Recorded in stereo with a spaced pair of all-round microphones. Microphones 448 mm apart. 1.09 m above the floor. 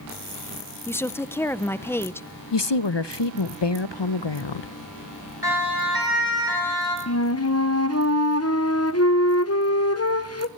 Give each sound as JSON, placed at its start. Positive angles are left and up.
{"t": 0.9, "sound": "a woman speaking", "side_deg": 5, "distance_m": 0.5}
{"t": 2.5, "sound": "a woman speaking", "side_deg": 75, "distance_m": 0.5}
{"t": 5.4, "sound": "a siren", "side_deg": 60, "distance_m": 5.0}
{"t": 7.1, "sound": "a flute", "side_deg": 35, "distance_m": 0.8}